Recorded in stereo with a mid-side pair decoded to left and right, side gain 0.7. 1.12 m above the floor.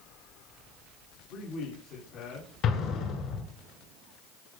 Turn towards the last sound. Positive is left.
turn(degrees=55)